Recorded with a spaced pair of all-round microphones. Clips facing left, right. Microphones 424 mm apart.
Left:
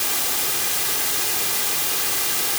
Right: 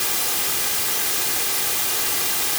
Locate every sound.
Only background noise.